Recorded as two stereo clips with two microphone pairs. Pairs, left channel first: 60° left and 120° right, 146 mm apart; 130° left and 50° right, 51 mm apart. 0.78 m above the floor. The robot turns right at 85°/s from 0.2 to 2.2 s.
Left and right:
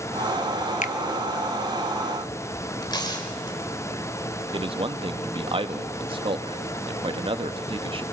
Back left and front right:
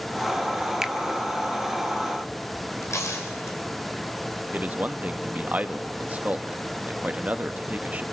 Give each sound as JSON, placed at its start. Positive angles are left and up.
{"t": 0.8, "sound": "a finger snap", "azimuth_deg": 30, "distance_m": 0.7}
{"t": 2.8, "sound": "tearing paper", "azimuth_deg": 120, "distance_m": 4.0}
{"t": 4.5, "sound": "a man speaking", "azimuth_deg": -90, "distance_m": 1.1}